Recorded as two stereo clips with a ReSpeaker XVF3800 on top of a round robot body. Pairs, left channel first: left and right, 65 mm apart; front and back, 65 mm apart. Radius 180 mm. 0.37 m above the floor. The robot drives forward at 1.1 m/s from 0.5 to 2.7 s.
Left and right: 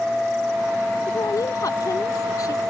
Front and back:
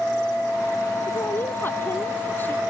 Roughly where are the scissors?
I don't hear scissors.